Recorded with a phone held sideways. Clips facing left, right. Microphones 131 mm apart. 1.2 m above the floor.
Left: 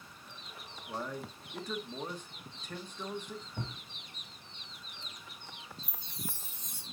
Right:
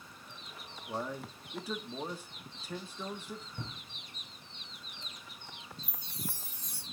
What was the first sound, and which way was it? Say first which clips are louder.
A man speaking: right 1 dB; 5° right (ahead or behind).